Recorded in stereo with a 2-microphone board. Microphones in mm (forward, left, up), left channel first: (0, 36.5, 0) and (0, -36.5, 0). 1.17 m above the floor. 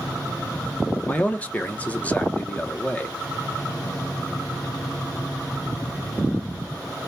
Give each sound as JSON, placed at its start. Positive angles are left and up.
{"t": 1.1, "sound": "a man speaking", "side_deg": 20, "distance_m": 0.6}